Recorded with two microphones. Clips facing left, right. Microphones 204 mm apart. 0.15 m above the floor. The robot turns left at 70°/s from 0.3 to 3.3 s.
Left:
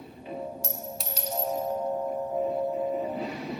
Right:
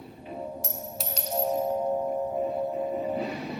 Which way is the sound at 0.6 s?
15° right (ahead or behind).